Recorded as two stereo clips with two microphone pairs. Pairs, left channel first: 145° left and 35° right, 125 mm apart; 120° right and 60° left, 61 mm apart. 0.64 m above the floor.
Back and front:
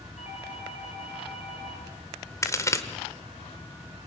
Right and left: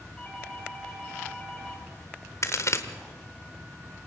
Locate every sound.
0.2 s a doorbell: 165° left, 4 m
2.4 s a crack: 150° right, 1.4 m